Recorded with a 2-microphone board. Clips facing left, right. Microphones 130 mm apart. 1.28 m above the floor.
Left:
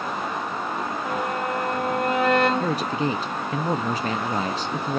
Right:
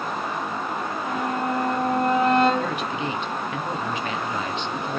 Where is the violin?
85° left, 6.5 m.